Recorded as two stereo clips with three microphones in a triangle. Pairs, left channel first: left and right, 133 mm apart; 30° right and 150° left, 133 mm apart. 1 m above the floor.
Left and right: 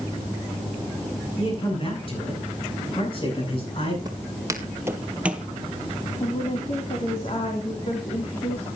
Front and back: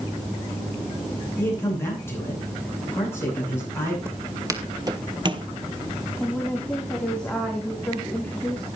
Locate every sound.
1.4 s a man speaking: 40° left, 10 m
4.0 s footsteps: 145° right, 1.9 m; by 5.5 s 175° right, 1.5 m
6.2 s a woman speaking: 50° left, 3 m